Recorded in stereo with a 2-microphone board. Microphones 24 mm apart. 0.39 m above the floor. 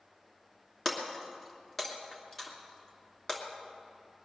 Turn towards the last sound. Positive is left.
turn(degrees=15)  # may be behind; listen again after turning